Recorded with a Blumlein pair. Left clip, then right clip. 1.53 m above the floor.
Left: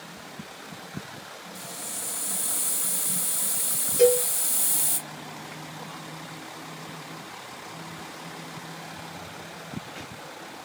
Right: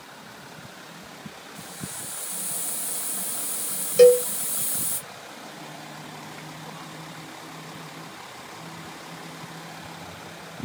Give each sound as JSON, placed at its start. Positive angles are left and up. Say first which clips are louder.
{"t": 1.6, "sound": "a hiss", "louder": "left 2 dB", "azimuth_deg": 30, "distance_m": 1.1}
{"t": 4.0, "sound": "a cowbell", "louder": "right 6 dB", "azimuth_deg": -55, "distance_m": 1.1}